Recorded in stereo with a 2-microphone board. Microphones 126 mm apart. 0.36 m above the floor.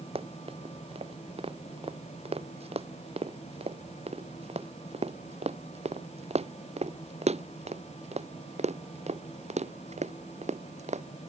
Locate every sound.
0.1 s running footsteps: 50° right (ahead or behind); by 11.0 s 65° right (ahead or behind)